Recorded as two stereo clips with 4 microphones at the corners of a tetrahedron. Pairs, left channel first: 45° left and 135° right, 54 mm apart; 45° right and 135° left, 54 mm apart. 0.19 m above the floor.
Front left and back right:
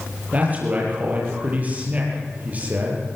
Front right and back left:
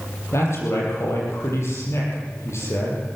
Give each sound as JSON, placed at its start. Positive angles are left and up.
{"t": 0.3, "sound": "a man speaking", "azimuth_deg": -75, "distance_m": 6.5}